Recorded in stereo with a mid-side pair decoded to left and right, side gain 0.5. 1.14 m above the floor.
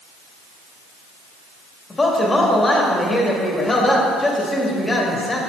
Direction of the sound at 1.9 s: 20° left.